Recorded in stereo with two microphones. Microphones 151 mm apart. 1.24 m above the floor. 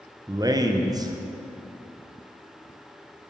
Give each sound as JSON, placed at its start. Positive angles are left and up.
{"t": 0.3, "sound": "a man speaking", "side_deg": -25, "distance_m": 0.6}